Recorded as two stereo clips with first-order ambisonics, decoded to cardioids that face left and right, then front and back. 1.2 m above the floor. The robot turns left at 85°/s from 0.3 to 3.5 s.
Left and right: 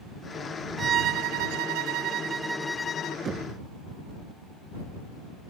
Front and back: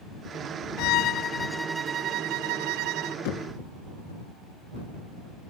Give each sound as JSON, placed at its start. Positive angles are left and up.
{"t": 0.8, "sound": "a violin", "azimuth_deg": -20}
{"t": 3.2, "sound": "knocking", "azimuth_deg": -20}